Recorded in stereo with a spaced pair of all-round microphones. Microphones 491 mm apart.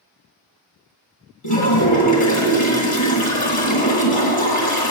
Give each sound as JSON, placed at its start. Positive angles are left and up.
{"t": 1.4, "sound": "a toilet flushing", "side_deg": 85, "distance_m": 2.0}